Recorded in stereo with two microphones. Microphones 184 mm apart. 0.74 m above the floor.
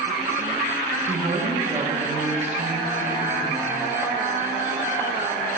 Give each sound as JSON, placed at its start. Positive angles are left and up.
{"t": 1.1, "sound": "a woman speaking", "side_deg": -35, "distance_m": 1.2}